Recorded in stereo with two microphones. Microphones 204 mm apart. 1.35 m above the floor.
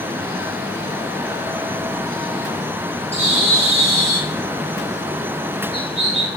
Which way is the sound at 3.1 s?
30° right (ahead or behind).